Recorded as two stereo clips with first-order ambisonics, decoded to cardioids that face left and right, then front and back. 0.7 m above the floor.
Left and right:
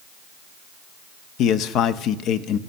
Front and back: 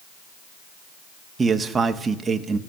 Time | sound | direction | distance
1.4 | a man speaking | 110° left | 0.8 m